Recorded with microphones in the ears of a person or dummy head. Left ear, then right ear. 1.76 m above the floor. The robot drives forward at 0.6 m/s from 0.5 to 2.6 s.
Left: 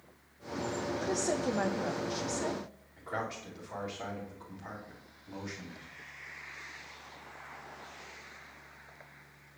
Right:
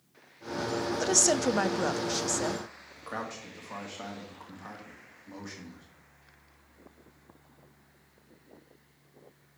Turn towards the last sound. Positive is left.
turn(degrees=-50)  # may be behind; listen again after turning